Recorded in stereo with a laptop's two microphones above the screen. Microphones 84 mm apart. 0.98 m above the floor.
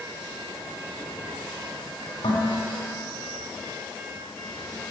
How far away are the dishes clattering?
About 2 m.